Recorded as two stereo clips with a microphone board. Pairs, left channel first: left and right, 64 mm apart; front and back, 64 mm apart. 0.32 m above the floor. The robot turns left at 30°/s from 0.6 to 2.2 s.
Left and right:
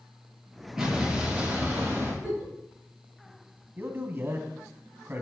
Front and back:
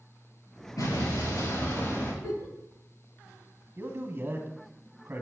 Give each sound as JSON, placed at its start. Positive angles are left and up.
{"t": 0.8, "sound": "an explosion", "azimuth_deg": -5, "distance_m": 6.0}
{"t": 2.2, "sound": "a giggle", "azimuth_deg": -10, "distance_m": 6.0}
{"t": 3.8, "sound": "a man speaking", "azimuth_deg": -130, "distance_m": 2.0}